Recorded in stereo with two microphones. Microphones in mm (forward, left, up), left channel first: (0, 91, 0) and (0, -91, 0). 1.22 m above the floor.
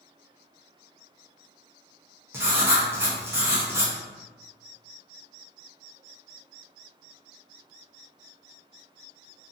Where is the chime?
I don't hear a chime.